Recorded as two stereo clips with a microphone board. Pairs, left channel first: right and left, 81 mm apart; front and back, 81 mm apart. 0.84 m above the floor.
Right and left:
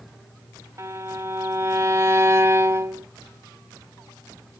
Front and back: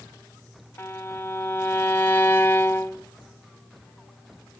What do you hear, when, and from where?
0.8 s a violin: 50° left, 0.8 m